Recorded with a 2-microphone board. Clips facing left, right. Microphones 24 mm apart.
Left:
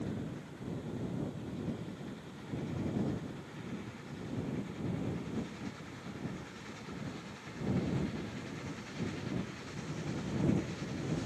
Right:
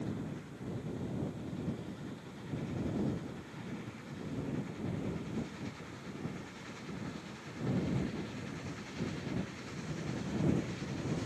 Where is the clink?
No clink in this recording.